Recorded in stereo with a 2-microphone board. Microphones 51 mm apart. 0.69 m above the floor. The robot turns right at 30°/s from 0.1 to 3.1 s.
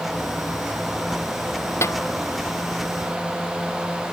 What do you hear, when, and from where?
1.8 s a snare drum: 65° left (ahead or behind); by 2.0 s 70° left (ahead or behind)